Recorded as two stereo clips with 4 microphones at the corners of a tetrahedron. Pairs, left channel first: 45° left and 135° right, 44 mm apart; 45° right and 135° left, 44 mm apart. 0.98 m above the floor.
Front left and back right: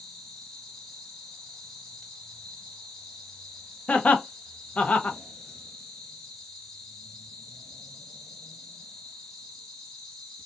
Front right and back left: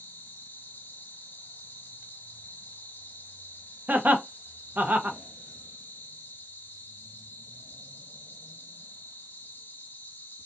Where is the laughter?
100° left, 0.5 m.